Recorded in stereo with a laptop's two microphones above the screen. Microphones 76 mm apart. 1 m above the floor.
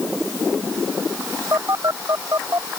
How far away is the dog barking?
No dog barking in this recording.